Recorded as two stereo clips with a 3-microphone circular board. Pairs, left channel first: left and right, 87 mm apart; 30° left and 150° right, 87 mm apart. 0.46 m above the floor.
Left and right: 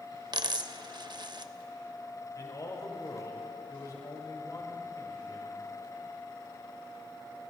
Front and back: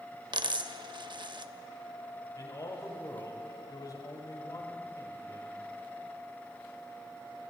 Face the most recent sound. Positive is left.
turn(degrees=55)